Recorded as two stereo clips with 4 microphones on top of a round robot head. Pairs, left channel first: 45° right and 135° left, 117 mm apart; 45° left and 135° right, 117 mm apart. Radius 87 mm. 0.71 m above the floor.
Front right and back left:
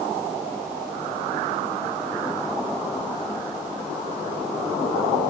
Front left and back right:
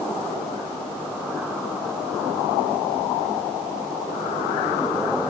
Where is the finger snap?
No finger snap in this recording.